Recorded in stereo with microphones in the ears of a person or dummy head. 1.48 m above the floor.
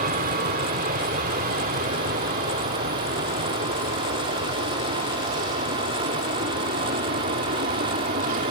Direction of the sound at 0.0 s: 50° right (ahead or behind).